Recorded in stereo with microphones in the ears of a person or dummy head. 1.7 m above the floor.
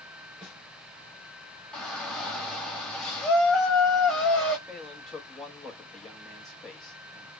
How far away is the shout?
About 1.6 m.